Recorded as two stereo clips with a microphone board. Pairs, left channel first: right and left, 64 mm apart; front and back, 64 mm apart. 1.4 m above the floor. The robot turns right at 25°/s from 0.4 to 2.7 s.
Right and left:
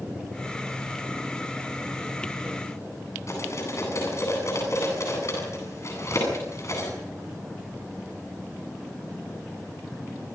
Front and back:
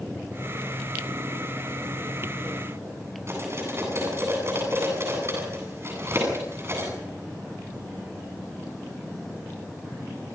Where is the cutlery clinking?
130° right, 9 m.